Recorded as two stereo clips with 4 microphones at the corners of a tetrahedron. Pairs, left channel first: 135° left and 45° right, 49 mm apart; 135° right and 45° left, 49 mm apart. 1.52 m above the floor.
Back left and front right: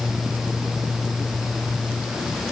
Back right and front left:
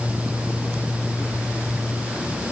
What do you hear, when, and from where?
Only background noise.